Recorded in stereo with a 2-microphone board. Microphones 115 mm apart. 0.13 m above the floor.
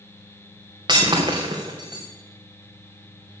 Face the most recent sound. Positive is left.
turn(degrees=-45)  # may be behind; listen again after turning